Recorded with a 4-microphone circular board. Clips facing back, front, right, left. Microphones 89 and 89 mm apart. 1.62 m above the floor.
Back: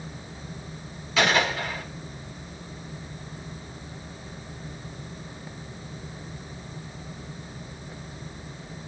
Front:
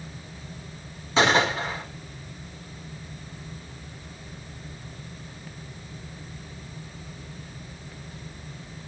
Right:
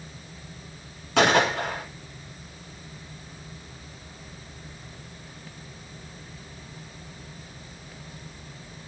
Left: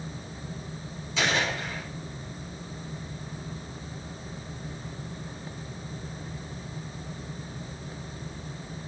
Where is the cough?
No cough in this recording.